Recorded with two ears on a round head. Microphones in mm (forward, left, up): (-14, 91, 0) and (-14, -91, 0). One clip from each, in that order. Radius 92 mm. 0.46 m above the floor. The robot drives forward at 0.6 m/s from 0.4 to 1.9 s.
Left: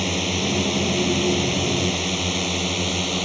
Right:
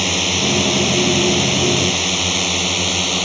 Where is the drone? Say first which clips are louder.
Right 6 dB; 25° right (ahead or behind).